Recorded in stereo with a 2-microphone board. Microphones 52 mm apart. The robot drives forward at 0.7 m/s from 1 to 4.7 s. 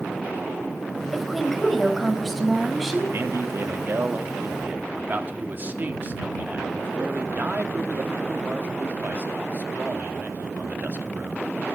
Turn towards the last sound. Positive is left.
turn(degrees=-35)  # may be behind; listen again after turning